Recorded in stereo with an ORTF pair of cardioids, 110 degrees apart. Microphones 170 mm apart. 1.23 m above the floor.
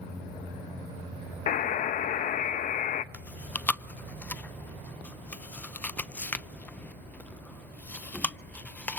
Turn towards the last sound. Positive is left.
turn(degrees=10)